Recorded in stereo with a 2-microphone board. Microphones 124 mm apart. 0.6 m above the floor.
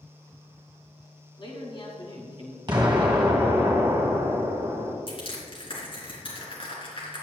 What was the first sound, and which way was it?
A man speaking, 45° left (ahead or behind).